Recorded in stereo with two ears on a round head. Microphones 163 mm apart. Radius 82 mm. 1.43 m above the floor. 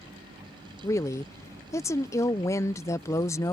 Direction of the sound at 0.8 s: 15° left (ahead or behind).